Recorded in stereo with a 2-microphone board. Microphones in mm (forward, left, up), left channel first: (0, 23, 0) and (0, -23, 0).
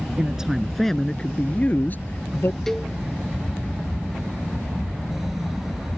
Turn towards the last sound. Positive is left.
turn(degrees=5)  # may be behind; listen again after turning